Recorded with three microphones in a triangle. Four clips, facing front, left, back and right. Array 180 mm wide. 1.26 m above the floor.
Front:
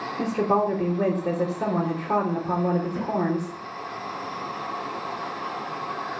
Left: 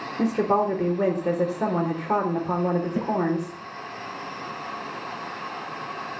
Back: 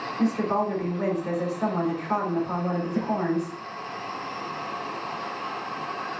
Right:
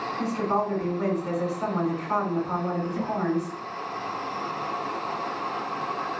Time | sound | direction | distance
0.2 | a woman speaking | 60° left | 3.5 m
3.0 | a snare drum | 110° left | 4.5 m